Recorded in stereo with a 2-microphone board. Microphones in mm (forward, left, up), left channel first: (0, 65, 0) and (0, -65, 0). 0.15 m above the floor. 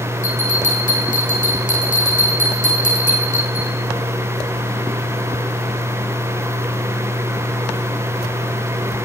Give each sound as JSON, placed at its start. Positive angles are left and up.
{"t": 0.2, "sound": "a bell", "side_deg": 85, "distance_m": 5.0}